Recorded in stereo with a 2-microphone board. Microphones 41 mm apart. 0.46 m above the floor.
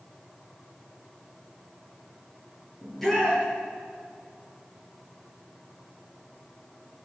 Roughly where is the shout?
Centre.